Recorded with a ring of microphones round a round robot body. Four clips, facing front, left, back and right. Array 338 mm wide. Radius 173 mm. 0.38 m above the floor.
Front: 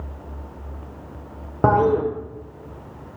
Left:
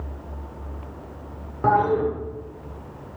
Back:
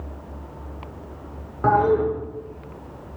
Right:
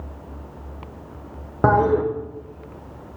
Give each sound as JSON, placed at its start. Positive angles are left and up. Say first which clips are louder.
{"t": 1.6, "sound": "a toilet flushing", "louder": "right 2 dB, front 1 dB", "azimuth_deg": -45, "distance_m": 0.6}